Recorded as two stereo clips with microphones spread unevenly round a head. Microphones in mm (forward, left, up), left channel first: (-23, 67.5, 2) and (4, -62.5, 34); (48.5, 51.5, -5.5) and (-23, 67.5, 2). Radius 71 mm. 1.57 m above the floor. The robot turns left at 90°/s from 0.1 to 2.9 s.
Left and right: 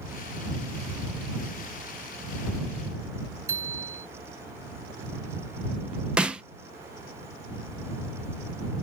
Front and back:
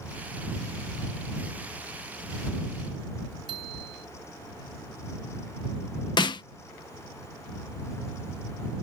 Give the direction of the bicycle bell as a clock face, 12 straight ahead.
5 o'clock.